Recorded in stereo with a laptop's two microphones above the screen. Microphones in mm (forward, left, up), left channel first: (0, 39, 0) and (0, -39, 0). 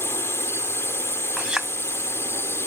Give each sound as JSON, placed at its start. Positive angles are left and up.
{"t": 0.0, "sound": "a drone", "side_deg": 30}
{"t": 1.4, "sound": "a clink", "side_deg": -10}